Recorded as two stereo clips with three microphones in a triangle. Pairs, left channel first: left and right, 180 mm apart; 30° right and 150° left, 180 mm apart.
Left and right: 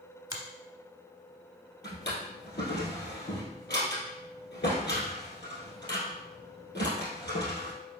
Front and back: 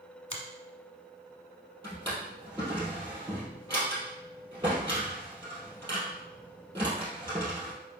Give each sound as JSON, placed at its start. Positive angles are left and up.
{"t": 0.3, "sound": "a finger snap", "azimuth_deg": -45, "distance_m": 1.0}
{"t": 1.8, "sound": "a drawer", "azimuth_deg": 90, "distance_m": 2.0}